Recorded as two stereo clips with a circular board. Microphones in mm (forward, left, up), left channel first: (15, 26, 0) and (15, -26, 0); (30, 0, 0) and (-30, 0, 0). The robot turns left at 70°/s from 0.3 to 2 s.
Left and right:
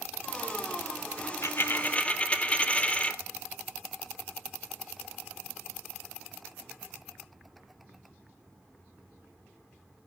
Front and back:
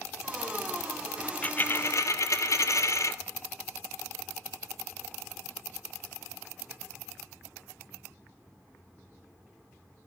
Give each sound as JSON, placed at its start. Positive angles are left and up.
{"t": 1.2, "sound": "a dropped coin", "azimuth_deg": 80, "distance_m": 0.5}